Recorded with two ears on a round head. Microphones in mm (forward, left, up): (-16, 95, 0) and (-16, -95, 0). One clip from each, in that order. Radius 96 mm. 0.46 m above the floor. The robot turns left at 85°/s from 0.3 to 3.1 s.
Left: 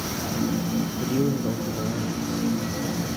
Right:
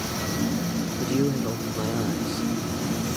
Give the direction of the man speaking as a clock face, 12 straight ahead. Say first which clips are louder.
Right 1 dB; 12 o'clock.